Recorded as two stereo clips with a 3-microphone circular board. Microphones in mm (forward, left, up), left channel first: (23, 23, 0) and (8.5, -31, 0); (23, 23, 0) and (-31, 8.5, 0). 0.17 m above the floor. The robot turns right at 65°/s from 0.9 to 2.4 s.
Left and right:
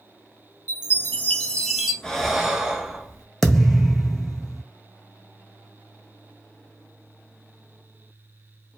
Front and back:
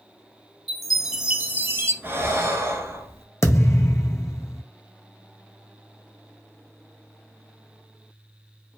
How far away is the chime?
About 0.7 m.